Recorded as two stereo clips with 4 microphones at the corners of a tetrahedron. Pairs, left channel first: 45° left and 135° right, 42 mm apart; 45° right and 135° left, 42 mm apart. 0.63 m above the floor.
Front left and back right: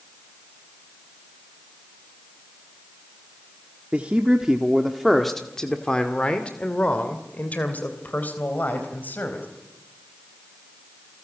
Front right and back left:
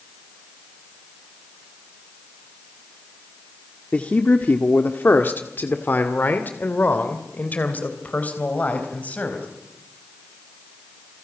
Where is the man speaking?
85° right, 1.4 m; by 9.5 s 5° left, 4 m.